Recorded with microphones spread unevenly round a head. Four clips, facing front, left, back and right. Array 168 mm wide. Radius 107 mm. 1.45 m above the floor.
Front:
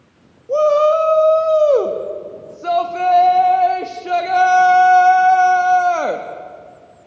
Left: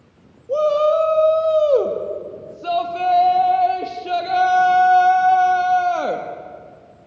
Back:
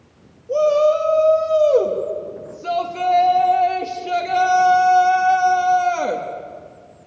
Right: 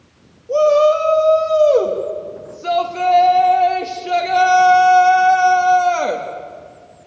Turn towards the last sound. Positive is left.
turn(degrees=-10)